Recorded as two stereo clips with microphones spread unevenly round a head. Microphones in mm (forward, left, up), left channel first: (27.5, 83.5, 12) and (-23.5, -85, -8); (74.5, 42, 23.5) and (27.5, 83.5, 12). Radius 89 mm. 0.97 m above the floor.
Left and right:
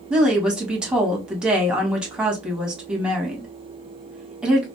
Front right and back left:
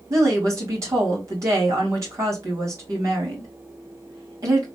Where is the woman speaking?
170° left, 1.4 m.